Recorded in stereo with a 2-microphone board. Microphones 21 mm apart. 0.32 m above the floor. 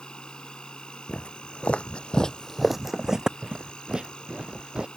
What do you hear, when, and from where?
0.0 s an insect: 50° left (ahead or behind)
1.1 s footsteps: 80° left; by 4.9 s 50° right (ahead or behind)